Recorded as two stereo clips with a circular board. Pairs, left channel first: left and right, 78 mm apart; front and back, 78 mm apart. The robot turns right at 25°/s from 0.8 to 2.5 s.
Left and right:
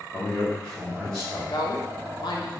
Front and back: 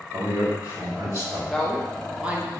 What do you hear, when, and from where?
0.1 s a man speaking: 160° left, 2 m; by 1.4 s 175° left, 2 m
1.5 s a woman speaking: 85° left, 0.9 m; by 2.5 s 110° left, 0.9 m